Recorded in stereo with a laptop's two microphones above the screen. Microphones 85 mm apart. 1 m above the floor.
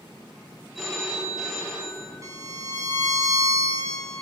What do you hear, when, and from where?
0.8 s a phone ringing: 5° right (ahead or behind), 1.9 m
2.2 s a violin: 40° right (ahead or behind), 0.9 m